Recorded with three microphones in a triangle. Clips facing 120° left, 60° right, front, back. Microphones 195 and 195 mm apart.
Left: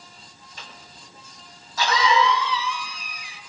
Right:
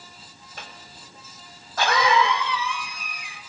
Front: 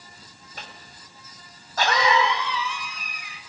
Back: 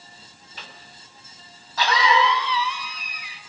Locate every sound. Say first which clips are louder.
0.6 s a cough: right 2 dB, front 2 dB; 35° right, 2.5 m